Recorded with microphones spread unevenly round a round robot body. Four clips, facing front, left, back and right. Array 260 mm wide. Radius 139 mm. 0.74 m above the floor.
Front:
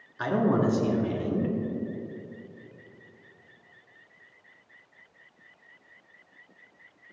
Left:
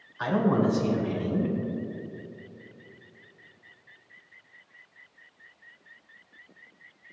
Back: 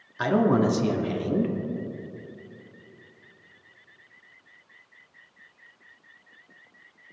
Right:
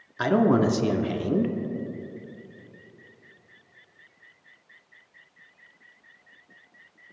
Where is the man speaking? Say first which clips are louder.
Right 4 dB, back 3 dB; 105° right, 1.4 m.